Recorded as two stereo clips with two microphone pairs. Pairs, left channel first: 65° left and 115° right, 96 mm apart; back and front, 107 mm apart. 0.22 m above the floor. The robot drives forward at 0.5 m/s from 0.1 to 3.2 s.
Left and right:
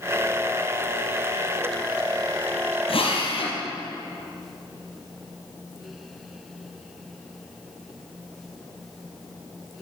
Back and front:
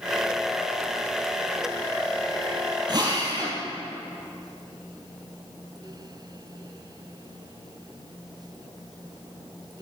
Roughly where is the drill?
Ahead left.